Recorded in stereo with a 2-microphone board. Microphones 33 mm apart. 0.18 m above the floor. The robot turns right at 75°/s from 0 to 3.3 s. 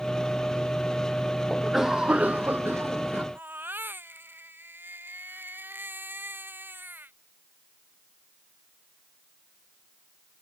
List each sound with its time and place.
1.5 s a cough: 175° left; by 3.2 s 50° right
3.4 s a baby crying: 80° right